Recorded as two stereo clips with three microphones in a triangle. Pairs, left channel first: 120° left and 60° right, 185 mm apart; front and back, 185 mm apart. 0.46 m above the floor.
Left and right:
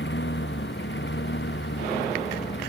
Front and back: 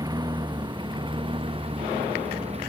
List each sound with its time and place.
0.0 s a lawn mower: 110° left; by 2.7 s 125° left